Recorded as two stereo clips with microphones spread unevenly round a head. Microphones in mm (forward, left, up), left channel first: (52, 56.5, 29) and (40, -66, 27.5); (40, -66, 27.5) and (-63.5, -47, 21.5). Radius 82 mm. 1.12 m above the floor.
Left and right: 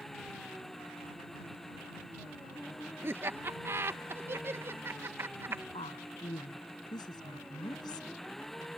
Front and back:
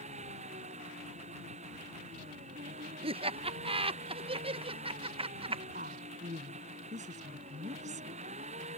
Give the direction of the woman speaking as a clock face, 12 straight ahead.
7 o'clock.